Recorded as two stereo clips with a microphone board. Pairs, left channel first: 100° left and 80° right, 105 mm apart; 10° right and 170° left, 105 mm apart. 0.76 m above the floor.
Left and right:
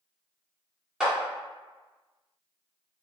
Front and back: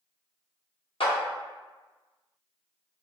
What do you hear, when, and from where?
1.0 s a clap: 5° left, 1.4 m